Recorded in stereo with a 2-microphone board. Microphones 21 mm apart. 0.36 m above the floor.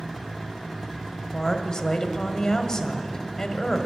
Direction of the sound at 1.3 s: 35° left (ahead or behind).